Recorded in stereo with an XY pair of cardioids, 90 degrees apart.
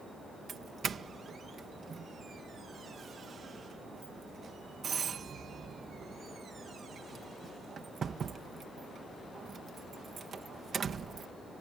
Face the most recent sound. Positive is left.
turn(degrees=-50)